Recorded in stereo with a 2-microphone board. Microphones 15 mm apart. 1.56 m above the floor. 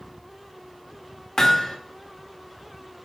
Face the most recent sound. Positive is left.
turn(degrees=30)  # may be behind; listen again after turning